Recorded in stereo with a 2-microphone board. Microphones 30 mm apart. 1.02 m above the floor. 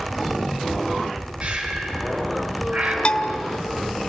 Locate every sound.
1.4 s breathing: 40° right (ahead or behind), 4.5 m
3.0 s a bell: 35° left (ahead or behind), 0.7 m